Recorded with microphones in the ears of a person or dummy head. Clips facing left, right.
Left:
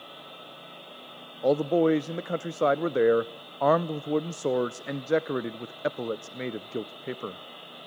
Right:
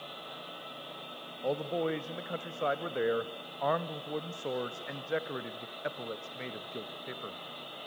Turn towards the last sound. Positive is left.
turn(degrees=60)  # may be behind; listen again after turning